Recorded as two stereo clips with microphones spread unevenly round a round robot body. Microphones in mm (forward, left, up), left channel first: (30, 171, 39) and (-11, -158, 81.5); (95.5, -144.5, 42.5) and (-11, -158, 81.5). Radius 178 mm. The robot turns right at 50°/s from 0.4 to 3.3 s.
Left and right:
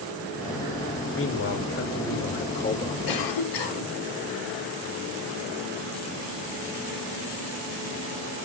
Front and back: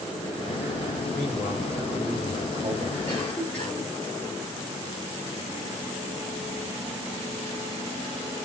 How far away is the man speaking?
About 1.7 m.